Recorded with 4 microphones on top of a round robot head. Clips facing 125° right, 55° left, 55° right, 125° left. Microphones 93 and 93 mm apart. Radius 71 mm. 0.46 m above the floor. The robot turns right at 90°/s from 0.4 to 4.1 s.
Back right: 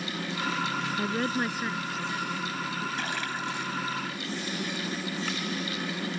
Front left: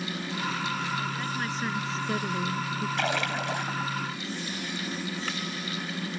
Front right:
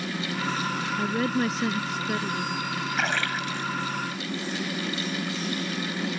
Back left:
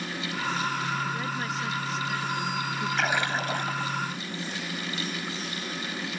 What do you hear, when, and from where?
1.0 s a woman speaking: 100° right; by 2.9 s 70° left
3.0 s a splash: 35° left; by 3.9 s 120° left